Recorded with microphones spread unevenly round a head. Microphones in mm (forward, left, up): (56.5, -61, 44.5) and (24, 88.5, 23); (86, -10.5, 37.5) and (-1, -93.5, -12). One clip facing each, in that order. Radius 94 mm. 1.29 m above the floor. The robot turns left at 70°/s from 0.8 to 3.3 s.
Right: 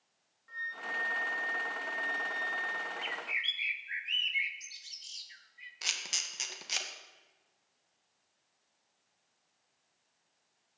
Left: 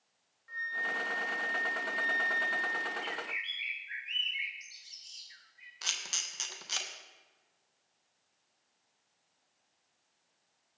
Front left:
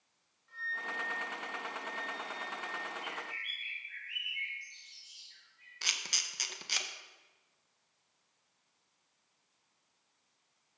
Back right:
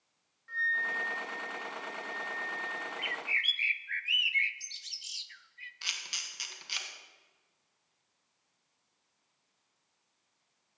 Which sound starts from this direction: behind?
A flute, at 0.5 s.